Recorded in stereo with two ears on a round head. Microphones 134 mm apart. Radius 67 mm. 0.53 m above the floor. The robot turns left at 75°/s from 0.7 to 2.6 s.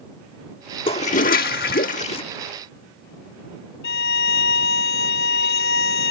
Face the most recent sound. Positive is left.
turn(degrees=80)